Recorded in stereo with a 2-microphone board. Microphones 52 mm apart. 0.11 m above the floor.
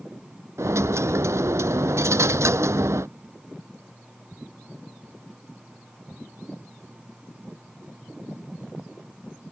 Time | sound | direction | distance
0.6 | a dropped coin | 75° right (ahead or behind) | ?